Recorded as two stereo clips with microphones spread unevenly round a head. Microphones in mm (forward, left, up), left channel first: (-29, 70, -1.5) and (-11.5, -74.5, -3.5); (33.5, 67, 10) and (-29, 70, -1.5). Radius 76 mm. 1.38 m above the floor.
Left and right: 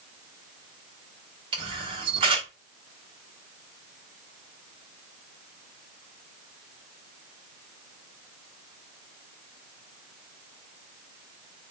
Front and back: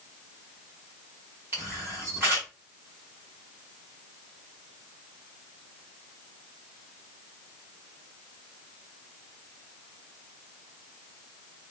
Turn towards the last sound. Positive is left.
turn(degrees=-115)